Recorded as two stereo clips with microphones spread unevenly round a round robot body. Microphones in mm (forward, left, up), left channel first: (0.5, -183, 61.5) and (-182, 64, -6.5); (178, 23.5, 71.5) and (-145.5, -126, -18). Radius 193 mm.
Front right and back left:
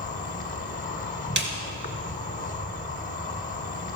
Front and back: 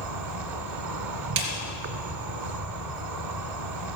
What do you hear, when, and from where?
0.0 s an insect: 120° right, 1.4 m
1.4 s a snare drum: straight behind, 2.5 m